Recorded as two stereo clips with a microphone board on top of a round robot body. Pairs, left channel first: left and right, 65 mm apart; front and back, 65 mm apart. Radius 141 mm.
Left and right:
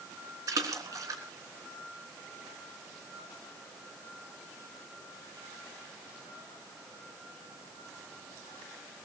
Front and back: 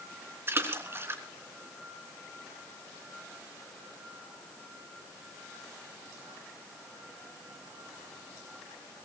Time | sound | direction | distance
0.5 | a splash | 125° right | 3.5 m